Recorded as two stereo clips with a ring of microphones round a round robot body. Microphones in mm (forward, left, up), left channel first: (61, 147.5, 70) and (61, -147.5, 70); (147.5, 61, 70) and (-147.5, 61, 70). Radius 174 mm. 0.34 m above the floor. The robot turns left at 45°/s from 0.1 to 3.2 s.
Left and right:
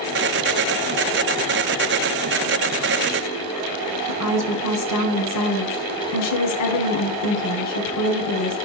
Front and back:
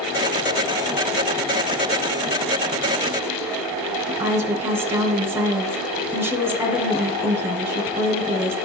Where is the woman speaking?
100° left, 1.9 m.